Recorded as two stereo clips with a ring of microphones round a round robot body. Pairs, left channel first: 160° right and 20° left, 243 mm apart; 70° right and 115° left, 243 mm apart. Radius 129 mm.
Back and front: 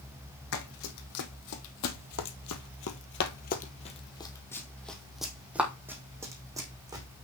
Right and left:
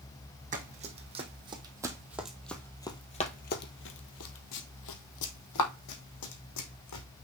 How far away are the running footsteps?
About 1.7 m.